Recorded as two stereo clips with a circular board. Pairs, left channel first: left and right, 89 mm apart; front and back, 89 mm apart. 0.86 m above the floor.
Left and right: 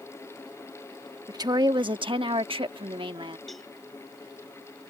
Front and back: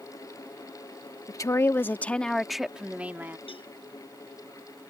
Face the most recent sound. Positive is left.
turn(degrees=0)